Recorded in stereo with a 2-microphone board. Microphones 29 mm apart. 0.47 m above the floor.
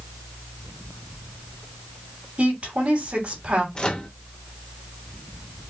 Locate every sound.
2.4 s a woman speaking: 45° right (ahead or behind), 2.5 m
3.8 s a microwave: 30° left (ahead or behind), 0.8 m